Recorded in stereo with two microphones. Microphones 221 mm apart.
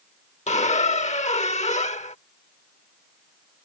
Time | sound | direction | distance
0.5 | a squeak | 30° left (ahead or behind) | ?